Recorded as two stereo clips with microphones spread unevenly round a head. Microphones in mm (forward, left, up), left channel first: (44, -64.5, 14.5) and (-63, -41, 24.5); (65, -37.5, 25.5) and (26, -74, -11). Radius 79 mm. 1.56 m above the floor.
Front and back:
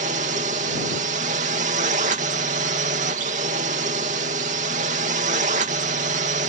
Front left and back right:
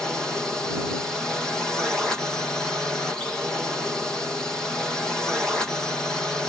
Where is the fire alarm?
No fire alarm in this recording.